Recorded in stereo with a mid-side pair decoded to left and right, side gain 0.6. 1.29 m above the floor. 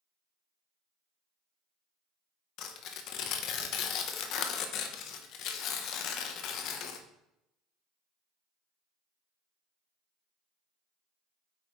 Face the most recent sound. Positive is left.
turn(degrees=65)